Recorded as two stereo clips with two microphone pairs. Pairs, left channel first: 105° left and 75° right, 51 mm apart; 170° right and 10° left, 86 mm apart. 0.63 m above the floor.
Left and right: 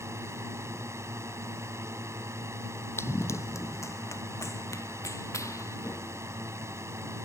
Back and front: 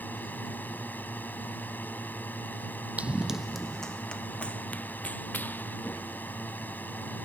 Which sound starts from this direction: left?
Running footsteps, at 3.0 s.